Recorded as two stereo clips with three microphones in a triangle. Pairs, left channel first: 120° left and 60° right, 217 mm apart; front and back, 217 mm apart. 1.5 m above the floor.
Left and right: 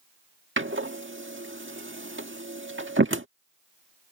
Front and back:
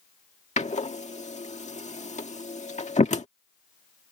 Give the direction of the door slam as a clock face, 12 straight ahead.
2 o'clock.